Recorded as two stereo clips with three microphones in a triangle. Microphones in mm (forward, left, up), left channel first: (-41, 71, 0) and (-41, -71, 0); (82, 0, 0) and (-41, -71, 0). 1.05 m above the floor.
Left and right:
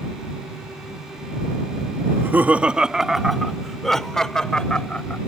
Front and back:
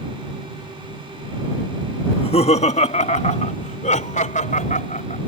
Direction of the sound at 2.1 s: 20° right.